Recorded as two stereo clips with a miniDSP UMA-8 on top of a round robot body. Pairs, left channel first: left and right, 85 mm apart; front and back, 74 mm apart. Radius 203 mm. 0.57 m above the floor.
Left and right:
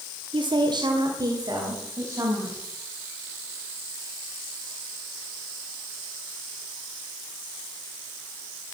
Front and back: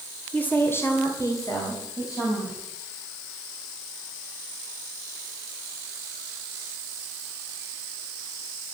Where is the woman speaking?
70° right, 2.5 m; by 2.6 s 30° right, 5 m.